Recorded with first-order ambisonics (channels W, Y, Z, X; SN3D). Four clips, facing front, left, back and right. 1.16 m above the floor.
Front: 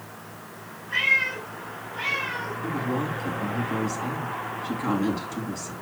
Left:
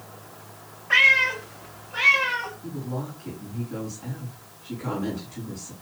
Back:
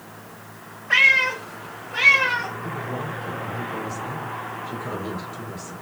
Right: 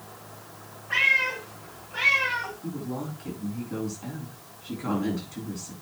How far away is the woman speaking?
About 7 m.